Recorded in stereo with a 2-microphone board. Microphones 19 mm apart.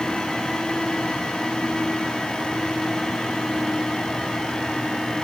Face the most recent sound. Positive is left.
No sound to turn to.